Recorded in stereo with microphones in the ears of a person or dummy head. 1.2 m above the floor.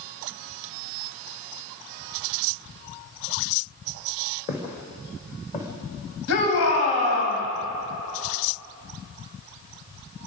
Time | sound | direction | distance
4.5 | footsteps | 35° left (ahead or behind) | 3.5 m
6.3 | a shout | 85° left | 6 m